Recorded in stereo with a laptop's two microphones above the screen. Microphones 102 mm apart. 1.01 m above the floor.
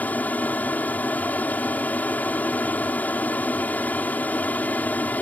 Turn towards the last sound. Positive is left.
turn(degrees=15)  # may be behind; listen again after turning